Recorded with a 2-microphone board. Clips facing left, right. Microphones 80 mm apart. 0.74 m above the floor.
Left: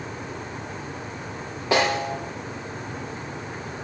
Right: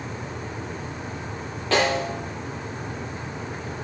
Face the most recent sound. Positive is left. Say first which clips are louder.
# even
turn(degrees=15)  # may be behind; listen again after turning